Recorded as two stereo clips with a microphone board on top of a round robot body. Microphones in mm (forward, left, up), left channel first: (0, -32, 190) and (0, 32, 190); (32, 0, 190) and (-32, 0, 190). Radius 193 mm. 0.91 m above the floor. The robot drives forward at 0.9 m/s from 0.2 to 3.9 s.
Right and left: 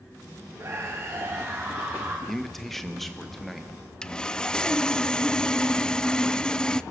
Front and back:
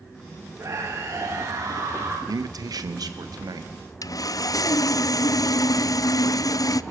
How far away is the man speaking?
About 1.4 m.